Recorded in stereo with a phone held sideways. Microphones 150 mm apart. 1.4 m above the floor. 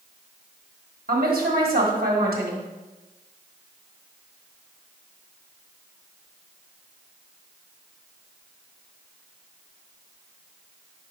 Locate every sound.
1.1 s a woman speaking: 85° right, 1.6 m